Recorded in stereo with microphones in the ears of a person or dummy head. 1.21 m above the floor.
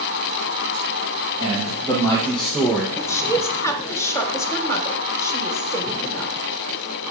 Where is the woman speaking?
15° left (ahead or behind), 1.0 m.